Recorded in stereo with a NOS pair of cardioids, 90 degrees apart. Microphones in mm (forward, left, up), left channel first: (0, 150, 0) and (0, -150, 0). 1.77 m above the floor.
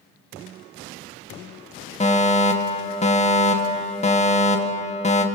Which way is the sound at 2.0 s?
20° left.